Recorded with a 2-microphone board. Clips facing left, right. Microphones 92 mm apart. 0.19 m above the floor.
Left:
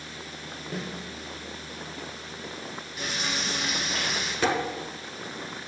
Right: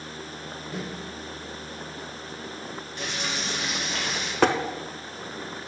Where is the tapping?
65° right (ahead or behind), 0.6 m.